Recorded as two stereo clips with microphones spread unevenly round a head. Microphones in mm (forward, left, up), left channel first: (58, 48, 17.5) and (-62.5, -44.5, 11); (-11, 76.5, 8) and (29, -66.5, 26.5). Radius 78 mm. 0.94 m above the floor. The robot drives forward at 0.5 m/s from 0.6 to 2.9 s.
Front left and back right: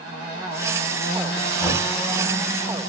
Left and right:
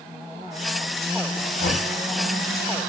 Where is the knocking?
125° left, 3.5 m; by 1.9 s 130° left, 3.5 m.